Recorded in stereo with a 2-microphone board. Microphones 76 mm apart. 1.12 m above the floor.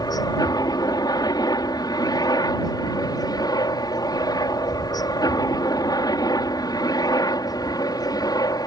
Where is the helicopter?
60° left (ahead or behind).